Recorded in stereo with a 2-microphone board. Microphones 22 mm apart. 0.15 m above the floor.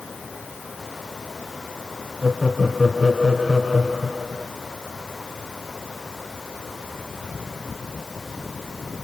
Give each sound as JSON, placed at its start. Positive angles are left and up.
{"t": 2.2, "sound": "laughter", "side_deg": -25, "distance_m": 2.0}